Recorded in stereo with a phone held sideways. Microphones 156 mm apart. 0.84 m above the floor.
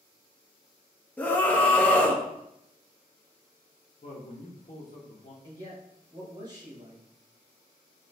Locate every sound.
1.2 s a scream: 10° left (ahead or behind), 0.7 m
4.0 s a man speaking: 60° left (ahead or behind), 0.8 m
5.4 s a man speaking: 25° right (ahead or behind), 1.5 m